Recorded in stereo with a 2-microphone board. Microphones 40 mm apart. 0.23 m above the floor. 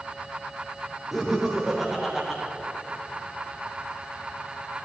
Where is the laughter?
10° right (ahead or behind), 10 m; by 2.4 s 5° right (ahead or behind), 8.5 m.